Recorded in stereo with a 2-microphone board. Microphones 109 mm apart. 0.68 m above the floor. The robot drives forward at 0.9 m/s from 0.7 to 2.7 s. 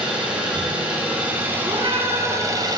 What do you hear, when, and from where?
0.0 s an engine running: 15° right (ahead or behind), 2.5 m; by 2.8 s 40° right (ahead or behind), 0.9 m
1.6 s a cat meowing: 55° right (ahead or behind), 2 m; by 2.4 s 45° right (ahead or behind), 2.5 m